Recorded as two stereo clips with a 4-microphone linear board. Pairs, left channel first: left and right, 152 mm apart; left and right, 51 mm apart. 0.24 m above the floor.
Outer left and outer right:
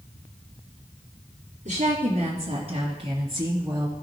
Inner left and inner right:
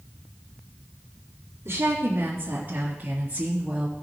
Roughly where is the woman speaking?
Right.